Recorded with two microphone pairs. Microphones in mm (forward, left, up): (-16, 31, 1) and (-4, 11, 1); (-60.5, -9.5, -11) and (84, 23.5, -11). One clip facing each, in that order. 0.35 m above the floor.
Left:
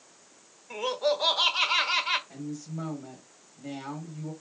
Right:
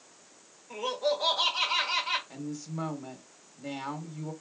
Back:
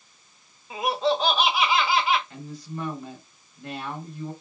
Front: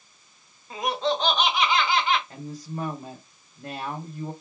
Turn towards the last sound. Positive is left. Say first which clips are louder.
# even, front 1 dB
turn(degrees=-10)